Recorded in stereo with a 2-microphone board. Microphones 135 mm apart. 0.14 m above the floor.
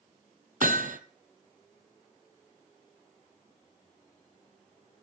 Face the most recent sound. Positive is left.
turn(degrees=-75)  # may be behind; listen again after turning